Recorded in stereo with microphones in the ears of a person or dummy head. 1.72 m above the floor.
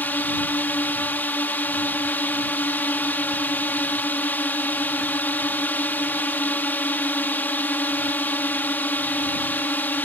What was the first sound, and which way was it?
A drone, 10° left (ahead or behind).